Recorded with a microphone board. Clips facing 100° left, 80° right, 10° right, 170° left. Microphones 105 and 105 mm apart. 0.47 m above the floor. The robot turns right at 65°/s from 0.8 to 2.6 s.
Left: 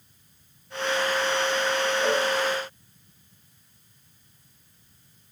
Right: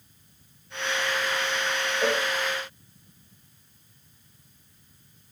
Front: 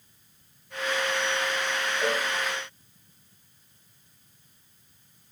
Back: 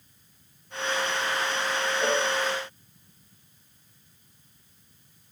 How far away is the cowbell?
About 2.5 m.